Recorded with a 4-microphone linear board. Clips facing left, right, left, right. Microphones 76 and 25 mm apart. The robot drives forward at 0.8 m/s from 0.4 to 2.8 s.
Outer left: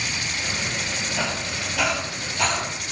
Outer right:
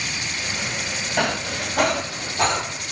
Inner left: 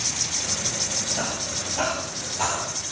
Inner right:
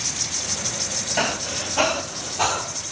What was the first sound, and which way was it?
Breathing, 65° right (ahead or behind).